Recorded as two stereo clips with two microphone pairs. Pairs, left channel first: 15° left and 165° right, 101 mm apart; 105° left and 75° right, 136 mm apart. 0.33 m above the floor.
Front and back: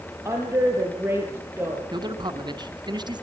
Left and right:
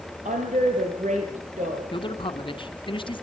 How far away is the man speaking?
About 2.5 m.